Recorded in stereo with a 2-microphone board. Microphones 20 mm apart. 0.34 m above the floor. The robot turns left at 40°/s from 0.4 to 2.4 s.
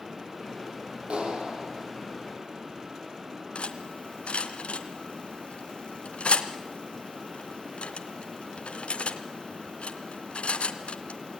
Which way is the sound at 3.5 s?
65° left (ahead or behind).